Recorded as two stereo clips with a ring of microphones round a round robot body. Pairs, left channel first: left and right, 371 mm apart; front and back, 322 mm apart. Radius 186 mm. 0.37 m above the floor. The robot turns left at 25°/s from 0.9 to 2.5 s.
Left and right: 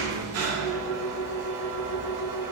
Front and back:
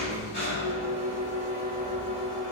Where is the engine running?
55° right, 0.8 m; by 2.5 s 95° right, 0.8 m.